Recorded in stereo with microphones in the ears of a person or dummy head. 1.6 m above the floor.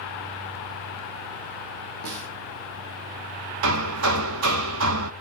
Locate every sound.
2.0 s a snare drum: 60° right (ahead or behind), 1.4 m
3.6 s hammering: 75° right (ahead or behind), 0.7 m